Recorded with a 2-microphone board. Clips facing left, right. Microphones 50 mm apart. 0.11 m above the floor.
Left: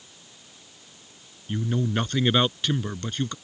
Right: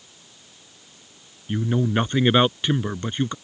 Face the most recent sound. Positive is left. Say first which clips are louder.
# right 4 dB
turn(degrees=-20)  # may be behind; listen again after turning